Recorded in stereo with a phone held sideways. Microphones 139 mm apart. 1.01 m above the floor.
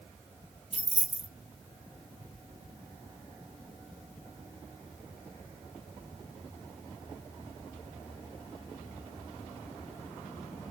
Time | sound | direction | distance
0.7 | keys jangling | 45° right (ahead or behind) | 0.6 m